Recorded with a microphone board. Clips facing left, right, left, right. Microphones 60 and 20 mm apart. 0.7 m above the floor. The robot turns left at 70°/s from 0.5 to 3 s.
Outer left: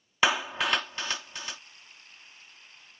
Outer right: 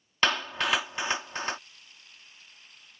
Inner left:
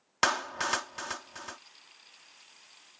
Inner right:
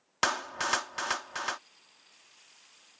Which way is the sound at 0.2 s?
10° left (ahead or behind).